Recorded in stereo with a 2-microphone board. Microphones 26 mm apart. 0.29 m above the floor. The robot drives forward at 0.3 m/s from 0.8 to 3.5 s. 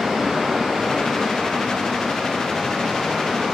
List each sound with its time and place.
0.0 s running water: 15° right (ahead or behind), 2.5 m; by 3.5 s 10° right (ahead or behind), 3.5 m